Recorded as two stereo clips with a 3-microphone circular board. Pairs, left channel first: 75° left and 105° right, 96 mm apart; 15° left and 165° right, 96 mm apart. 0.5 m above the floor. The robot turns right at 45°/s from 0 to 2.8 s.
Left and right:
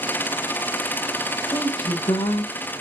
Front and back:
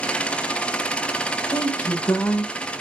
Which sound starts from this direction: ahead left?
A woman speaking, at 1.5 s.